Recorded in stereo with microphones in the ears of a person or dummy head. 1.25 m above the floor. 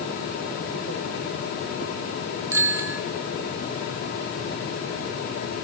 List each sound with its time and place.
2.5 s a bicycle bell: 20° right (ahead or behind), 2 m